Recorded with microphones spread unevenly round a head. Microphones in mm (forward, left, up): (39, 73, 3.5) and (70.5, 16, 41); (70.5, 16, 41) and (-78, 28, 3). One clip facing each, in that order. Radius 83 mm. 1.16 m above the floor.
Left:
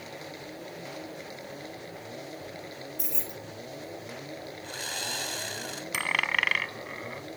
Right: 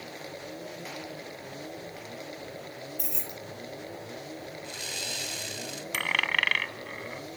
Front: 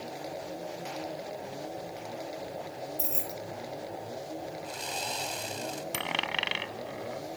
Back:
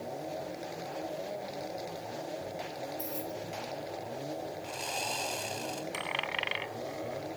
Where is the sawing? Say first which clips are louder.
Left 2 dB, even; 80° left.